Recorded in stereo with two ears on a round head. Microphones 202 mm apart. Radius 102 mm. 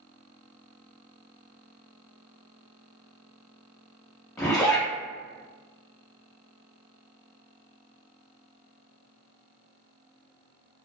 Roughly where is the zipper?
Centre.